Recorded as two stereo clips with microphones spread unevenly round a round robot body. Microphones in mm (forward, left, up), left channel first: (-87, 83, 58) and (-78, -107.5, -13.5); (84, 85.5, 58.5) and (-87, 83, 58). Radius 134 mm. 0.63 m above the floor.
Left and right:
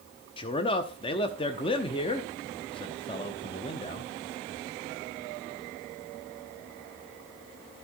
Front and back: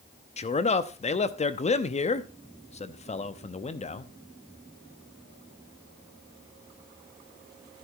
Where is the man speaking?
15° left, 0.9 m.